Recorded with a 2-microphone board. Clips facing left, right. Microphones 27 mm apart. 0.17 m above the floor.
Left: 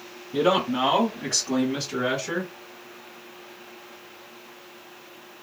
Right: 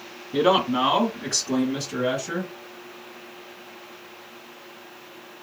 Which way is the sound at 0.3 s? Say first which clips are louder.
Right 2 dB; 25° right (ahead or behind).